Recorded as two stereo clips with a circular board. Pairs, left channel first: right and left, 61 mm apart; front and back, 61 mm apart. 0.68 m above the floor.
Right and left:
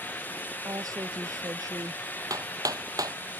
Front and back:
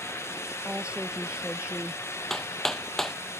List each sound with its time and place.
0.7 s a woman speaking: 110° left
2.3 s hammering: 85° left